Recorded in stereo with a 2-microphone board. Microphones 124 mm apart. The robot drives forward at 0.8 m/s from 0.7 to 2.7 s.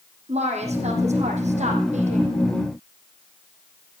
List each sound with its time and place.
0.3 s a woman speaking: 65° right (ahead or behind), 5.5 m; by 2.3 s 75° right (ahead or behind), 5 m